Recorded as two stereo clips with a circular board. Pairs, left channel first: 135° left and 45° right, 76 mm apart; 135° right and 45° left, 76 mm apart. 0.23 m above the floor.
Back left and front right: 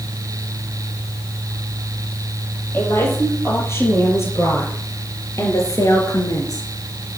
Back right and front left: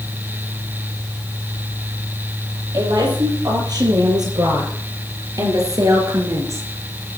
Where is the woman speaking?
75° left, 8 m; by 6.7 s 95° left, 4 m.